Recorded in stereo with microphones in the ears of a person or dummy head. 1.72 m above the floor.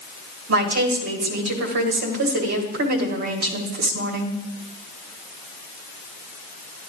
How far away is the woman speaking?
About 1.5 m.